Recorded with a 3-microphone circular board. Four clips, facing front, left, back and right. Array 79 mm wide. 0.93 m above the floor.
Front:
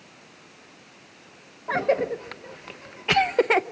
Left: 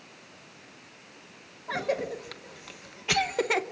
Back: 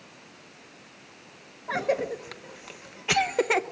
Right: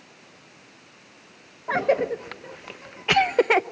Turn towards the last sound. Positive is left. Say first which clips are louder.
# right 8 dB, front 4 dB
turn(degrees=-70)